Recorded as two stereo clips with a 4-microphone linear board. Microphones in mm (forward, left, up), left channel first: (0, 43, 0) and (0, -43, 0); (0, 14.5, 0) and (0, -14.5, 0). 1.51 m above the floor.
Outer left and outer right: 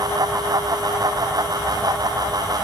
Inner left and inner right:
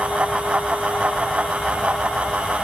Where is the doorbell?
No doorbell in this recording.